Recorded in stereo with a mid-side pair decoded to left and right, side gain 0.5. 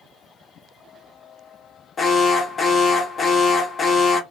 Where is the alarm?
40° left, 0.7 m.